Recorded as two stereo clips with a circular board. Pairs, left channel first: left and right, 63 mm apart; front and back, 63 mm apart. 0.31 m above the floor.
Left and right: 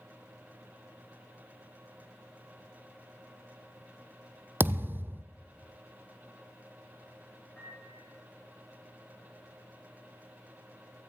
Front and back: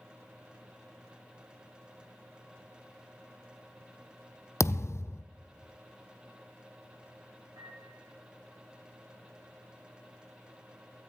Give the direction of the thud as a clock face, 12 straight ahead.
1 o'clock.